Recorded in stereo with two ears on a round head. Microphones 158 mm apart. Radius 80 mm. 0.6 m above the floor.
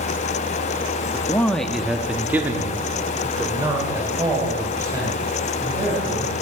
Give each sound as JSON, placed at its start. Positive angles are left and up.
{"t": 1.1, "sound": "a man speaking", "side_deg": 15, "distance_m": 0.7}